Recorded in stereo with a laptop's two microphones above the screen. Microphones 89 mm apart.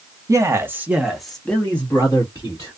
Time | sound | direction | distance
0.3 | a man speaking | 35° right (ahead or behind) | 0.8 m